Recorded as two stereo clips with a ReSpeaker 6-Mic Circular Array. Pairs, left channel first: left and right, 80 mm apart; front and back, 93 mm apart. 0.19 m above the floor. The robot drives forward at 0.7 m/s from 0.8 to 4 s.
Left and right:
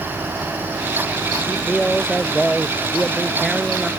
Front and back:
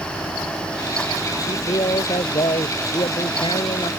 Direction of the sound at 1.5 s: Straight ahead.